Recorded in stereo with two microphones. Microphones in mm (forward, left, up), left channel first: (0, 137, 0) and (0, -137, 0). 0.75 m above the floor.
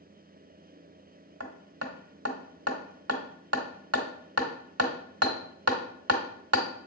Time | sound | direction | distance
1.4 | hammering | 65° right (ahead or behind) | 1.1 m